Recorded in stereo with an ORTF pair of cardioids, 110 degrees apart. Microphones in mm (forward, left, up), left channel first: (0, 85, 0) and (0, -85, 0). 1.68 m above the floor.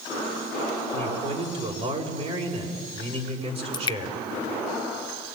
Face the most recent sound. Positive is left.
turn(degrees=25)